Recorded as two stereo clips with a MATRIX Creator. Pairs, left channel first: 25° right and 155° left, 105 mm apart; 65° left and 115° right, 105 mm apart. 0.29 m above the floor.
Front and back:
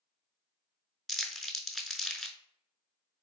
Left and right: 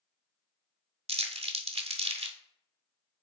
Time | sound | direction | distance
1.1 | crumpling | 115° right | 0.5 m